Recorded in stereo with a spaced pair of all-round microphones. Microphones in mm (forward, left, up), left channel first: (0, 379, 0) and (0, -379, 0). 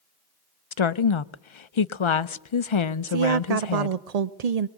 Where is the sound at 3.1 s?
60° right (ahead or behind), 0.6 m.